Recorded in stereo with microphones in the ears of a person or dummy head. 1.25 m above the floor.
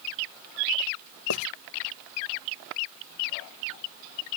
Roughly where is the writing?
Left.